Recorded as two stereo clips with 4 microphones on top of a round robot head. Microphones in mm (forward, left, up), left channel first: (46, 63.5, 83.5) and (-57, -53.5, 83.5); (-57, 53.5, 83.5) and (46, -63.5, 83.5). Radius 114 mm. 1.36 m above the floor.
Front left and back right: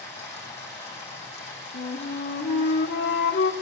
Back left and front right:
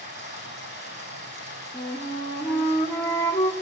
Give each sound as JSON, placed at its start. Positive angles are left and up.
{"t": 0.0, "sound": "running water", "azimuth_deg": -5, "distance_m": 9.0}
{"t": 1.7, "sound": "a flute", "azimuth_deg": 55, "distance_m": 1.7}